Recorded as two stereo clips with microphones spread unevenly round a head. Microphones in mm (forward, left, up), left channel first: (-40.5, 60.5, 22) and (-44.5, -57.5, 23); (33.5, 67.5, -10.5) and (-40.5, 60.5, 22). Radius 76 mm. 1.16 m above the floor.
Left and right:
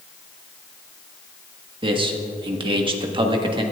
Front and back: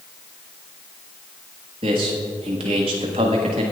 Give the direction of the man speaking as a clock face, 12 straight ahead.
5 o'clock.